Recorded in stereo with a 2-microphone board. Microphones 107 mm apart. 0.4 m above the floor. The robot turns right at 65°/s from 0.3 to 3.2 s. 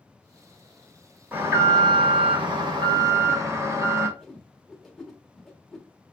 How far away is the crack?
No crack in this recording.